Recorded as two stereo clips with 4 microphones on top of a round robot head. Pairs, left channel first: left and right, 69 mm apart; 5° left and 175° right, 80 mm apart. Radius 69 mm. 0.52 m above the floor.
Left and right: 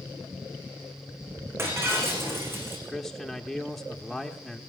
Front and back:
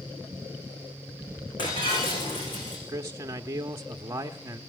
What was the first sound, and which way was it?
Breaking glass, 35° right.